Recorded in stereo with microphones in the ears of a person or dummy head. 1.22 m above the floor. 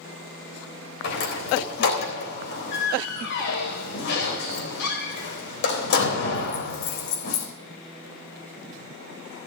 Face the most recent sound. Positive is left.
turn(degrees=65)  # may be behind; listen again after turning